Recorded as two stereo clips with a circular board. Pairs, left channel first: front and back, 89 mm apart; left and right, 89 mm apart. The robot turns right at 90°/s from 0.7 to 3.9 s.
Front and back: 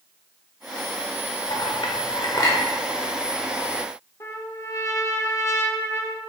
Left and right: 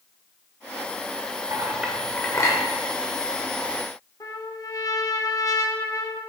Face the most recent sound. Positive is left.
turn(degrees=50)